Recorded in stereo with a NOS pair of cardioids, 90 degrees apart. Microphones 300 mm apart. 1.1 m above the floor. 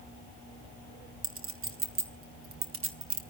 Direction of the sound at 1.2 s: 45° right.